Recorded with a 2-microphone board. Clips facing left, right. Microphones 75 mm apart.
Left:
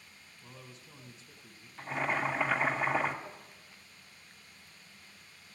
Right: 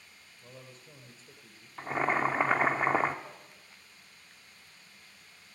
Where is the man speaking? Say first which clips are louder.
Right 2 dB; 45° right (ahead or behind), 2 m.